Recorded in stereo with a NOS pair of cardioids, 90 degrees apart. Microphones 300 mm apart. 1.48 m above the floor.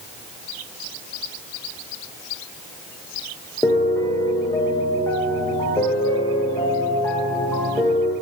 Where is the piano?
10° left, 0.8 m.